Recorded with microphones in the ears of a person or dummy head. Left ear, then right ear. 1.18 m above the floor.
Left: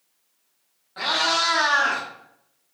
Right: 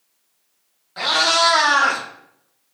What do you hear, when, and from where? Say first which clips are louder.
1.0 s a cat meowing: right 5 dB; 5° right (ahead or behind), 1.1 m; by 2.0 s 65° right (ahead or behind), 1.3 m